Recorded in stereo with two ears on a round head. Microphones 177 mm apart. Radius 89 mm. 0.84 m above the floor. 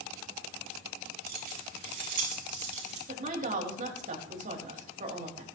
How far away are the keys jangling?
About 6 m.